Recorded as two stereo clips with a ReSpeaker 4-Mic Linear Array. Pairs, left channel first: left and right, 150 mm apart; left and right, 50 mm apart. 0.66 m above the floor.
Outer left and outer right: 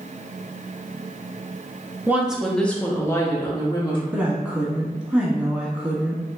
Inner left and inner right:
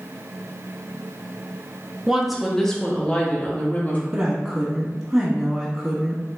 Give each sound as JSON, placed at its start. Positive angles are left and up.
{"t": 2.1, "sound": "a woman speaking", "side_deg": -15, "distance_m": 0.7}
{"t": 4.1, "sound": "a woman speaking", "side_deg": -10, "distance_m": 1.2}